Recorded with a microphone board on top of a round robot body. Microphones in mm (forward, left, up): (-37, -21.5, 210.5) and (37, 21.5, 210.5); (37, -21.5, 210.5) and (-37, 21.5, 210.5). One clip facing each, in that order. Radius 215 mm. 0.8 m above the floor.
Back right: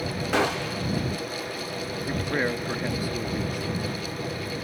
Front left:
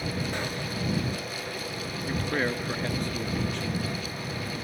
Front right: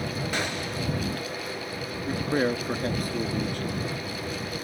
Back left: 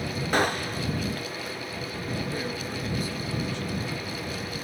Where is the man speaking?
70° right.